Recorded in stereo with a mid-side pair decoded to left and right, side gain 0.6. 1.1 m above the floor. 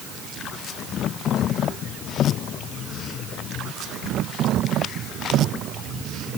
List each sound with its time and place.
Only background noise.